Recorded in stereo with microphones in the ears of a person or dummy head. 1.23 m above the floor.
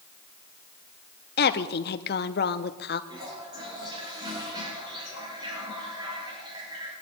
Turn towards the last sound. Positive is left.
turn(degrees=-25)  # may be behind; listen again after turning